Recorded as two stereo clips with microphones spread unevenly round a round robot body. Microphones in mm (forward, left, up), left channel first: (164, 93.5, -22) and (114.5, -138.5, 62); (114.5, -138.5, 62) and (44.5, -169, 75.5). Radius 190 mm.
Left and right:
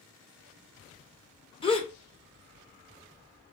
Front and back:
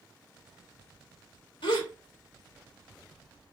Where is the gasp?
10° left, 1.2 m.